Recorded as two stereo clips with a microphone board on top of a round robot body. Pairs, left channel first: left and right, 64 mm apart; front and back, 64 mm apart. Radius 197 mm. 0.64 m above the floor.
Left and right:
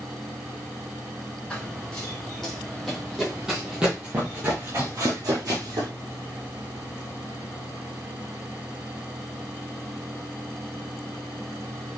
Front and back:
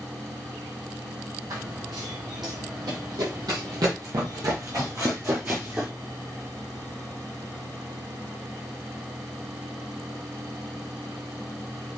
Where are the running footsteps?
165° left, 2.5 m; by 5.9 s 110° right, 1.3 m.